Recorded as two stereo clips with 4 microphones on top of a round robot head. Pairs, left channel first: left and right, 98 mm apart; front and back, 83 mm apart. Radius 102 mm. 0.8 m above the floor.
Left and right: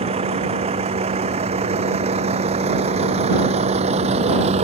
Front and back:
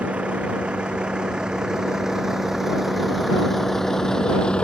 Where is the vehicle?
100° right; by 4.7 s 80° right.